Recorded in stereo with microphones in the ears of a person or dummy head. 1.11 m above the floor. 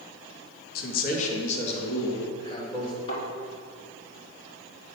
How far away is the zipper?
I don't hear a zipper.